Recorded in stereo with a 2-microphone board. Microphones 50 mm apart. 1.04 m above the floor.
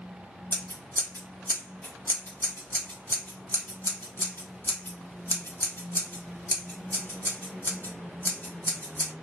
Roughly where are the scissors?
Left.